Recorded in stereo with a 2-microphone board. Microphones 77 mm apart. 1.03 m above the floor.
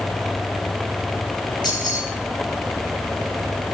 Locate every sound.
1.6 s keys jangling: 70° left (ahead or behind), 8.5 m